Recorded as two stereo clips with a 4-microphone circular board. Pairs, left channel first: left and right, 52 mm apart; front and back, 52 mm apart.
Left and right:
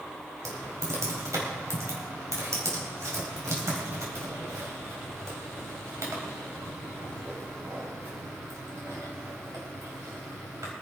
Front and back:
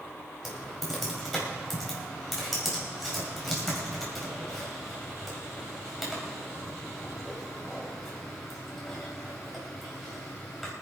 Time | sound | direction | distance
0.5 | typing on a keyboard | 90° right | 4.5 m